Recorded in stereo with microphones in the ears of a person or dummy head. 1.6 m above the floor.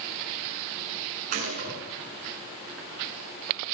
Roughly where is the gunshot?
Right.